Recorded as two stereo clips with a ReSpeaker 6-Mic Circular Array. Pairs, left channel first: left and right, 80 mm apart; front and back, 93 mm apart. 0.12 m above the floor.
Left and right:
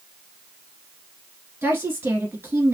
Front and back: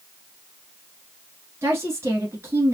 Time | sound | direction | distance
1.6 | a woman speaking | 135° right | 1.4 m